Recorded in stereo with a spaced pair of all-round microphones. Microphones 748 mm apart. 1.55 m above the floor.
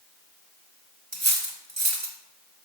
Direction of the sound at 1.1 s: 20° right (ahead or behind).